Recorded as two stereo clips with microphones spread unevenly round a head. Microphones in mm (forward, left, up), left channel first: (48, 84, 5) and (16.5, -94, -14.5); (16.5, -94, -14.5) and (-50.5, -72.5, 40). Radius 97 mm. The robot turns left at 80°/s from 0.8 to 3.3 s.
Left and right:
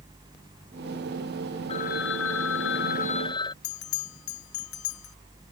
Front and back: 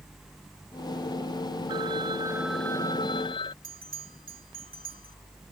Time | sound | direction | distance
1.7 | a phone ringing | 145° left | ?
3.6 | a bell | 105° left | ?